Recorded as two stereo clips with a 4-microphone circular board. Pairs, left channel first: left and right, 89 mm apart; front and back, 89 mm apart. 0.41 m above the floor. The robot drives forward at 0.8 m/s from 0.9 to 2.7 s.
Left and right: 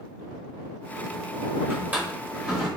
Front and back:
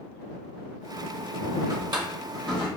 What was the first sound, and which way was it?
A drawer, 150° right.